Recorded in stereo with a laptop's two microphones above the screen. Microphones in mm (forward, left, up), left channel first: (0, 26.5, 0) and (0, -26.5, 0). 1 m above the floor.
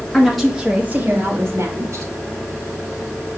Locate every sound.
0.1 s a woman speaking: 10° left (ahead or behind), 1.6 m; by 2.1 s 70° right (ahead or behind), 2.5 m